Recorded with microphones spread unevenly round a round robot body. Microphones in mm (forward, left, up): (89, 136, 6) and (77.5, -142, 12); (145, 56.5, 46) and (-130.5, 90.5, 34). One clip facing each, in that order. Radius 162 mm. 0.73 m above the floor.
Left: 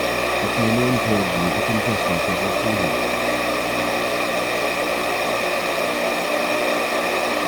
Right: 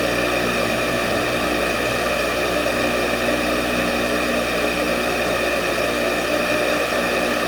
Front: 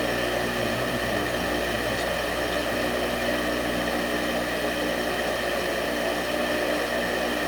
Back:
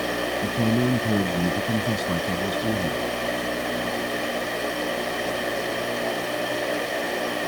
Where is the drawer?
I don't hear a drawer.